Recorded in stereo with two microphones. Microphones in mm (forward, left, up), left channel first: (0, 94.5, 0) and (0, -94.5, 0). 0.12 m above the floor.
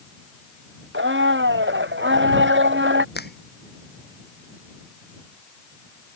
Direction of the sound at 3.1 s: 60° left (ahead or behind).